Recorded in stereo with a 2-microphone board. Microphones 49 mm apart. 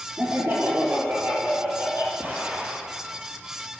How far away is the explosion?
About 3 m.